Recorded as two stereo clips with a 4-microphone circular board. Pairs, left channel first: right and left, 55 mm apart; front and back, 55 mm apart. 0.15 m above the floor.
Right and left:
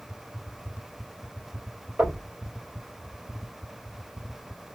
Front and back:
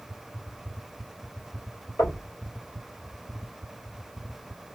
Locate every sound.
2.0 s knocking: 40° left, 3.5 m